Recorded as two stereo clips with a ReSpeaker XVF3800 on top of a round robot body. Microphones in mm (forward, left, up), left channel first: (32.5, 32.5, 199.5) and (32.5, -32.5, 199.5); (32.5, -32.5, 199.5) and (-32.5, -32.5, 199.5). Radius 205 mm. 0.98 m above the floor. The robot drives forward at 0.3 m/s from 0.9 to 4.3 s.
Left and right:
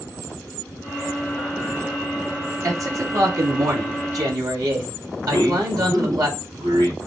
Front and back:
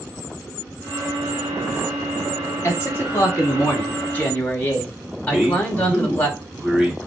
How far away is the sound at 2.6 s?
About 2.5 m.